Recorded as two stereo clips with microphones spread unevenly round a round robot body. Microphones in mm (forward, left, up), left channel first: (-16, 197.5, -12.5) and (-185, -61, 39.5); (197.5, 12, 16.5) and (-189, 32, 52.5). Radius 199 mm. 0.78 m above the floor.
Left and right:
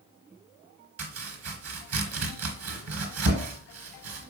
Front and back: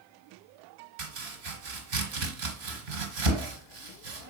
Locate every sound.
1.0 s chopping: 160° right, 3 m